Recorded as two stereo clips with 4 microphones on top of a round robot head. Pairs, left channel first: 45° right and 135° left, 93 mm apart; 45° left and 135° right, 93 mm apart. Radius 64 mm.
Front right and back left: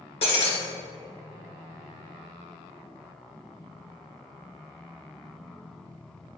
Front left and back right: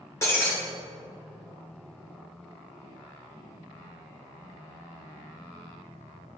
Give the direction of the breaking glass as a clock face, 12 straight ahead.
1 o'clock.